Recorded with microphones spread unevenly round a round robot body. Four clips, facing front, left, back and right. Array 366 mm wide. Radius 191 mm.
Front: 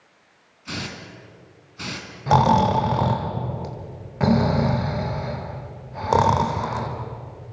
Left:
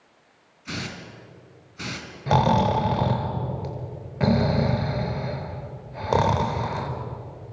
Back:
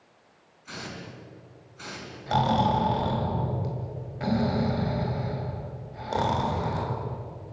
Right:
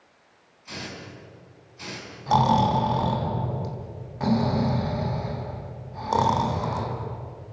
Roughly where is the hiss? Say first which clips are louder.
Left 3 dB, front 5 dB; ahead left.